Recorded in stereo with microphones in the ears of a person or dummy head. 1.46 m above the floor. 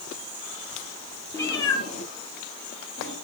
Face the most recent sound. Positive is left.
turn(degrees=60)  # may be behind; listen again after turning